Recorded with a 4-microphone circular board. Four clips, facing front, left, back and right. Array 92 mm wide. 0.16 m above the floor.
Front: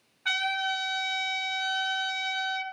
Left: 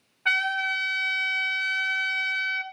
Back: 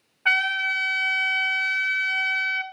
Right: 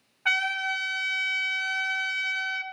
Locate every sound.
0.2 s a trumpet: 165° right, 1.2 m